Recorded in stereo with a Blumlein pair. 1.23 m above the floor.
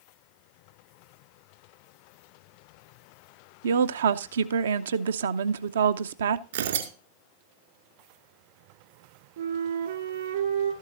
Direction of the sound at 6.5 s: 60° right.